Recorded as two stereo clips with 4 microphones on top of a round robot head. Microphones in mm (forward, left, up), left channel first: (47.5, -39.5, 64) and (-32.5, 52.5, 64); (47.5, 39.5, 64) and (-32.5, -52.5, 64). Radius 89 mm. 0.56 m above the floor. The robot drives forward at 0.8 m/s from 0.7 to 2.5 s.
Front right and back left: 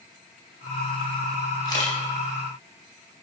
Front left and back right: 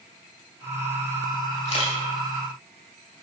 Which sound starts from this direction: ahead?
A camera shutter, at 1.6 s.